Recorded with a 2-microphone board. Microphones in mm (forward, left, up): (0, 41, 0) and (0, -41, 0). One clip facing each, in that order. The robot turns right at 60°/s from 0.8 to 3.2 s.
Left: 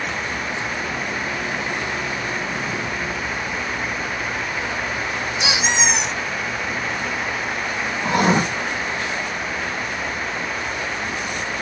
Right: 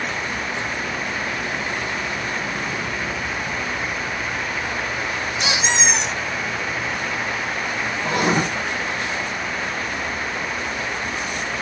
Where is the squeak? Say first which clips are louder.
Even; 10° left (ahead or behind), 2.5 m.